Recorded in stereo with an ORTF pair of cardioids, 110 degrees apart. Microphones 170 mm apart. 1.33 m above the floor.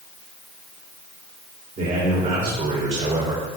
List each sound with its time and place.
1.8 s a man speaking: 50° right, 3 m; by 3.4 s 30° right, 3 m